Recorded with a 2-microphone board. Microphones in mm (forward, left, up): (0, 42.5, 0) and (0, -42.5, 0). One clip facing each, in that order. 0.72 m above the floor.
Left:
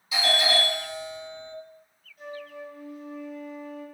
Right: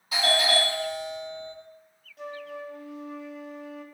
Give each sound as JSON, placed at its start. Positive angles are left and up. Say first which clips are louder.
{"t": 0.1, "sound": "a doorbell", "louder": "right 1 dB", "side_deg": -45, "distance_m": 2.0}
{"t": 2.2, "sound": "a flute", "louder": "right 2 dB", "side_deg": -80, "distance_m": 0.6}